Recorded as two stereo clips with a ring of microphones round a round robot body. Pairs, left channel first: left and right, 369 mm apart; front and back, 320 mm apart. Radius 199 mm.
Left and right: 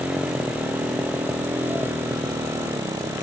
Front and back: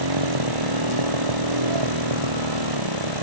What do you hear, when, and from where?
0.0 s a motorcycle: 175° right